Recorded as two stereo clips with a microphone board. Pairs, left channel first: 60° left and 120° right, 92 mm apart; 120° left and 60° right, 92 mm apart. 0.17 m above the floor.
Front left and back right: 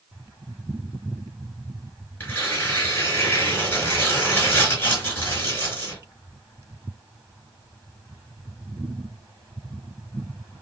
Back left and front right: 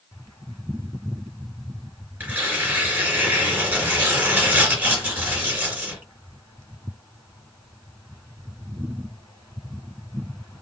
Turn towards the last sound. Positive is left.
turn(degrees=5)